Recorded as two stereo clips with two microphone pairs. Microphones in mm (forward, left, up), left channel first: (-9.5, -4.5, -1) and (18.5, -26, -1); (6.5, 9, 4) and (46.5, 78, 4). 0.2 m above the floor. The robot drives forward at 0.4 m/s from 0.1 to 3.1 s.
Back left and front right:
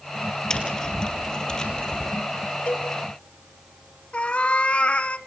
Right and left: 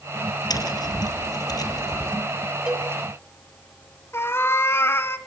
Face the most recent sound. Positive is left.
turn(degrees=-175)